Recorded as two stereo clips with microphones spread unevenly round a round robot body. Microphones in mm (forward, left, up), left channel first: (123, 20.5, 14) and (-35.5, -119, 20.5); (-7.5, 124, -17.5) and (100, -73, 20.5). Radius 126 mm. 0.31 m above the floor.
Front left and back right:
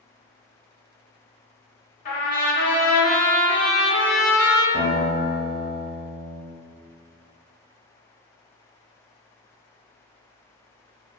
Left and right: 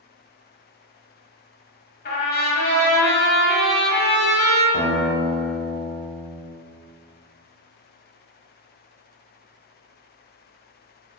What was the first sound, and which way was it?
A trumpet, 90° left.